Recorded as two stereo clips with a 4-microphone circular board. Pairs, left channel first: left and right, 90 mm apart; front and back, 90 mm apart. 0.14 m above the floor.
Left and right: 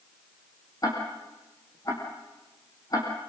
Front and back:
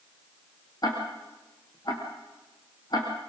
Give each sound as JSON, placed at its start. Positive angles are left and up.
{"t": 0.8, "sound": "ticking", "azimuth_deg": 45, "distance_m": 5.0}